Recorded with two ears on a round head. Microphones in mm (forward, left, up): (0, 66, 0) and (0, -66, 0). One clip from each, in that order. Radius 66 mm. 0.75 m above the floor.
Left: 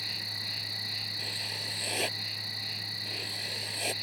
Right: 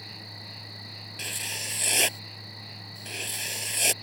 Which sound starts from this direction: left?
An insect, at 0.0 s.